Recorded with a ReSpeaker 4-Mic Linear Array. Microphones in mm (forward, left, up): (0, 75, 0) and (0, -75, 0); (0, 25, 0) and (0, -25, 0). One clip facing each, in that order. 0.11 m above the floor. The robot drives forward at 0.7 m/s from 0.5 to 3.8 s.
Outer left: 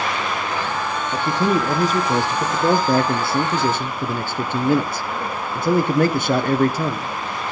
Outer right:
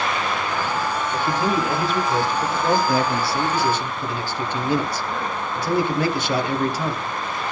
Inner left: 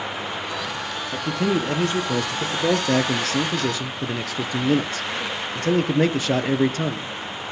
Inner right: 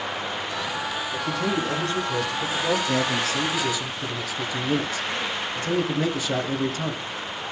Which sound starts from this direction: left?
A man speaking, at 1.1 s.